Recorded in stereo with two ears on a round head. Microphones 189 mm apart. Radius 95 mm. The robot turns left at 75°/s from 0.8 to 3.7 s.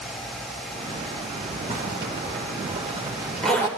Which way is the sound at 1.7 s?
40° right (ahead or behind).